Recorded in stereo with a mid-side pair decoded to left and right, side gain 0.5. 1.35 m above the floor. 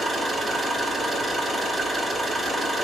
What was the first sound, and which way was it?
An engine running, 25° right.